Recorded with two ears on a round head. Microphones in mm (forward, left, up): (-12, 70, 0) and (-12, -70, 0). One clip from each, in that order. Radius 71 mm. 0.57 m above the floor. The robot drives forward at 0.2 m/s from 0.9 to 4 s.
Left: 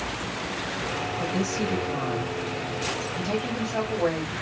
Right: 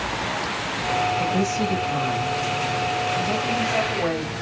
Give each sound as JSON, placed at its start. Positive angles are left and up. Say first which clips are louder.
{"t": 1.2, "sound": "a woman speaking", "louder": "right 5 dB", "side_deg": 0, "distance_m": 3.0}